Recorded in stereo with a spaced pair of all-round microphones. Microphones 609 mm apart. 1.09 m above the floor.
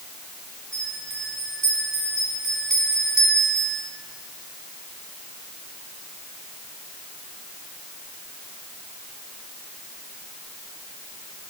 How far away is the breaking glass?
I don't hear breaking glass.